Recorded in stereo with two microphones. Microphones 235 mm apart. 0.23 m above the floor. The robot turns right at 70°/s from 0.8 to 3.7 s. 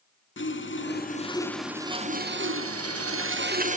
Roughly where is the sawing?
Behind left.